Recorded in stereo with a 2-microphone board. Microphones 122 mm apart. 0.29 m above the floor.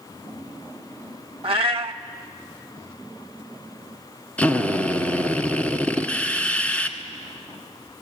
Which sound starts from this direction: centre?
A drill, at 4.4 s.